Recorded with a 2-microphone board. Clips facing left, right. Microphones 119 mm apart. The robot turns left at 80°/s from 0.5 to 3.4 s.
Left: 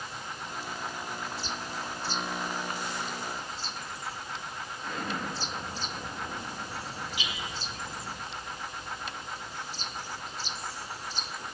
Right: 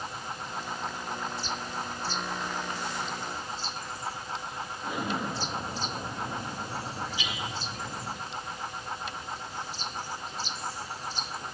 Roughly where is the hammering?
Left.